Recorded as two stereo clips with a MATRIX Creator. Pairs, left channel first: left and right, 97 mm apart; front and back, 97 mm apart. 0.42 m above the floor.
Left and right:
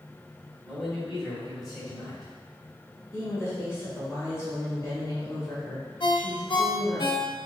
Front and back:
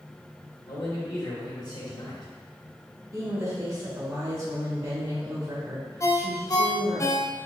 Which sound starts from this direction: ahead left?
A ringtone, at 6.0 s.